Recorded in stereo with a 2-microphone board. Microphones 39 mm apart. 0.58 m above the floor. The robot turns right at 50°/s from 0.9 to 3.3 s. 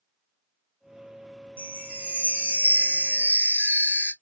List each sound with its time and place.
1.6 s a chime: 150° right, 2.0 m; by 4.1 s 65° right, 2.0 m